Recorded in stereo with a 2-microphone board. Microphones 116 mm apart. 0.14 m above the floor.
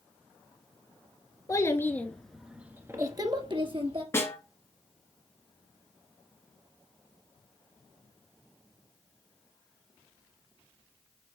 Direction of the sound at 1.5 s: 30° left (ahead or behind).